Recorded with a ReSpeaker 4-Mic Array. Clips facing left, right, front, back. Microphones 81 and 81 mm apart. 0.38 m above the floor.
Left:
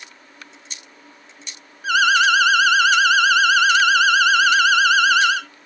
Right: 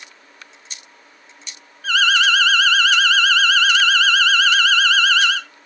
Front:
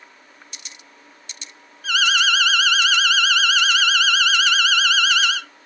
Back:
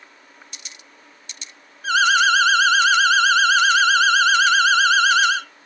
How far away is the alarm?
About 0.6 m.